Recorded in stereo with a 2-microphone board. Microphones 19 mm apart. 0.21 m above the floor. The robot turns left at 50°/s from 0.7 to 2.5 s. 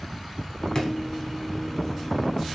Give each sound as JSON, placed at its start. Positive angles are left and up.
{"t": 0.8, "sound": "a drawer", "side_deg": 35, "distance_m": 0.6}